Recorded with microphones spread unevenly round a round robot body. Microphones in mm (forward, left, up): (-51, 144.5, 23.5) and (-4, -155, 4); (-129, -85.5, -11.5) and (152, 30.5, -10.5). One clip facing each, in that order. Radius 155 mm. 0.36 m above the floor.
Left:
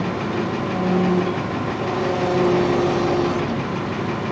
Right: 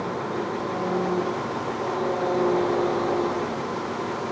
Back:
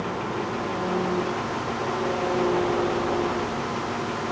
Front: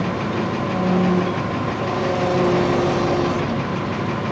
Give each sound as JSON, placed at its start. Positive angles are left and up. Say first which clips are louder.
{"t": 0.0, "sound": "an engine running", "louder": "left 5 dB, front 6 dB", "azimuth_deg": 55}